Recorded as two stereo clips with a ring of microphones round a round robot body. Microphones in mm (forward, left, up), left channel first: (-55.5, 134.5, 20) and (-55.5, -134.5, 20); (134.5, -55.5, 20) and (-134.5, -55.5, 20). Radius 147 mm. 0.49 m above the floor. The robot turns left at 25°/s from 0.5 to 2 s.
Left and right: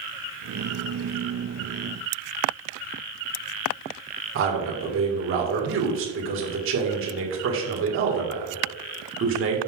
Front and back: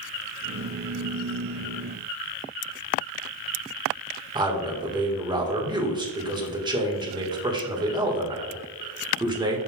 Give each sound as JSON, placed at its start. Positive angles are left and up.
{"t": 4.3, "sound": "a man speaking", "azimuth_deg": -110, "distance_m": 1.8}